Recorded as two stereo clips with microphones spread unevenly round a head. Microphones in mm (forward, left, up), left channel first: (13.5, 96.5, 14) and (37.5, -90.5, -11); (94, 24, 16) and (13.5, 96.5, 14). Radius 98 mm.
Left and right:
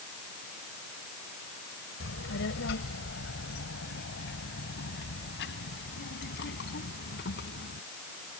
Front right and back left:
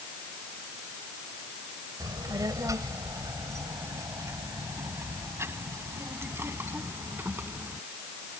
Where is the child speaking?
85° left; by 7.8 s 65° left.